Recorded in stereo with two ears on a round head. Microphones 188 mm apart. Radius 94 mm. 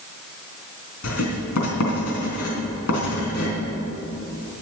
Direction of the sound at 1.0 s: 80° left.